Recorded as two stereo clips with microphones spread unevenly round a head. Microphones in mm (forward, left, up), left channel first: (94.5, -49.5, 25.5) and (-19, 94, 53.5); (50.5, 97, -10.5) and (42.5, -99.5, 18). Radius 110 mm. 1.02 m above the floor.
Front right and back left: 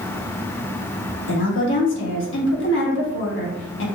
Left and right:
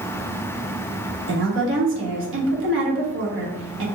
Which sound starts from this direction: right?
A woman speaking, at 1.3 s.